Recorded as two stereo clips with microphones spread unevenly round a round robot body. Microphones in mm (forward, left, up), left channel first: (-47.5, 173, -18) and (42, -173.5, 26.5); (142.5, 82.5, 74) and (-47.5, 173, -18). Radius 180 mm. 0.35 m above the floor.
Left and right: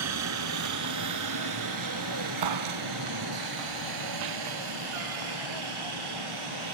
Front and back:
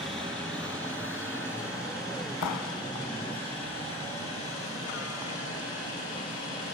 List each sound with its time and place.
0.0 s a helicopter: 120° right; by 6.8 s 95° right
2.4 s a clap: 55° right